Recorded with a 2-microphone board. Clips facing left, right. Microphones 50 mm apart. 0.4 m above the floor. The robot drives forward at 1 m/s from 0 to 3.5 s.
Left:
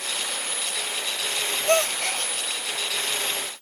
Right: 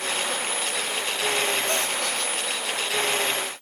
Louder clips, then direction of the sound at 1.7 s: Left 4 dB; 60° left (ahead or behind).